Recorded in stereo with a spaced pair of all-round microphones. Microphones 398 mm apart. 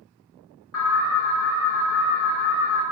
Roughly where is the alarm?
Left.